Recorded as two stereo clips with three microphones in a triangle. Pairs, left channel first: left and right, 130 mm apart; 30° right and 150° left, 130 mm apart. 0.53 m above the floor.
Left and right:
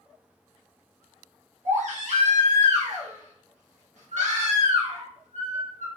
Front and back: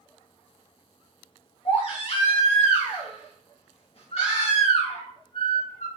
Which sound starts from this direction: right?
A baby crying, at 1.6 s.